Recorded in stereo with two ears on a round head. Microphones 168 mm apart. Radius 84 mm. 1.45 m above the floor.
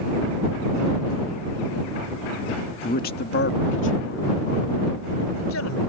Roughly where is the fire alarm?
No fire alarm in this recording.